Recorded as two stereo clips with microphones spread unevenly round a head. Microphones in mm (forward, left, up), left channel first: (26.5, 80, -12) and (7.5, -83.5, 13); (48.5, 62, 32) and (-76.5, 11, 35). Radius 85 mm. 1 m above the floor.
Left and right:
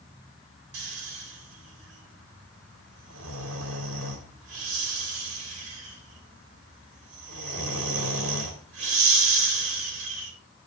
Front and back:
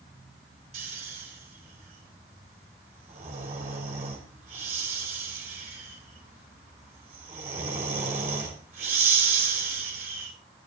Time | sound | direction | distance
0.7 | snoring | 105° right | 2.5 m